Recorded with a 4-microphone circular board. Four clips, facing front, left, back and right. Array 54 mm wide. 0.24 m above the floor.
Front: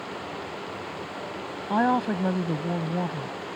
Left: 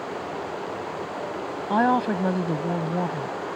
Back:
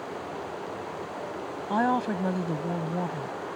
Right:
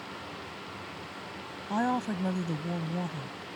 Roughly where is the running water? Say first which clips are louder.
Left 10 dB, even; left.